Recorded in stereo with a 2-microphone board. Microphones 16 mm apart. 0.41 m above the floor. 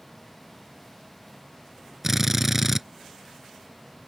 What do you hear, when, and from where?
2.0 s a drill: 15° right (ahead or behind)